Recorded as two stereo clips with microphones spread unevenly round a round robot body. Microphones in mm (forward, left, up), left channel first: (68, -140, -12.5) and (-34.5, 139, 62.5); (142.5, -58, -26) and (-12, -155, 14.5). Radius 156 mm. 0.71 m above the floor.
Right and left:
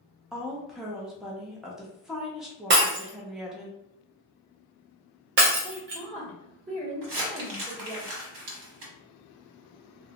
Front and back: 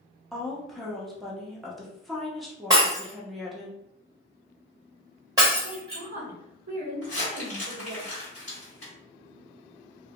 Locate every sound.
0.3 s a woman speaking: 15° right, 0.6 m
2.7 s breaking glass: 150° left, 0.5 m
5.6 s a woman speaking: 175° left, 1.4 m
7.0 s crumpling: 90° left, 1.1 m